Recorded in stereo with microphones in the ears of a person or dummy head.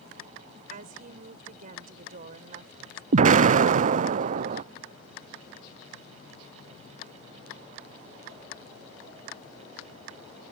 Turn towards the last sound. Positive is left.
turn(degrees=-45)  # may be behind; listen again after turning